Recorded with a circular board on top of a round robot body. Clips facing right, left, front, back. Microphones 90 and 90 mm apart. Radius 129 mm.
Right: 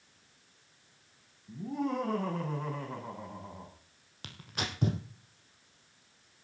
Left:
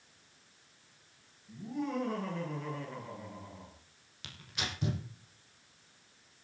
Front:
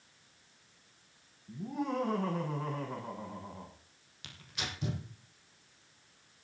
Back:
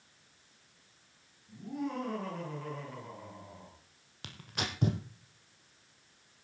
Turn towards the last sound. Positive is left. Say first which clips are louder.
# right 3 dB, back 4 dB
turn(degrees=-135)